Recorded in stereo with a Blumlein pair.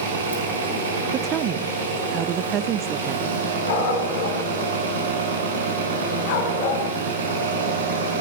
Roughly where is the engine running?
Ahead right.